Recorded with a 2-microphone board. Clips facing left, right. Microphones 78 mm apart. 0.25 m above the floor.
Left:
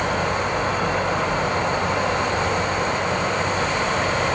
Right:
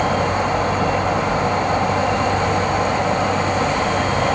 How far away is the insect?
About 0.8 m.